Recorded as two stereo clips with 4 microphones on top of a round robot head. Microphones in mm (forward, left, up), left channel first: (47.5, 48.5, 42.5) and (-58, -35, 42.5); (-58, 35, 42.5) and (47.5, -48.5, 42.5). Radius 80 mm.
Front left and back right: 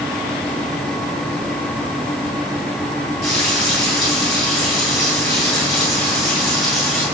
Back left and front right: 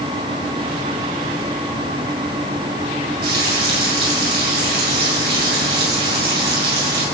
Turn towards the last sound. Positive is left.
turn(degrees=-50)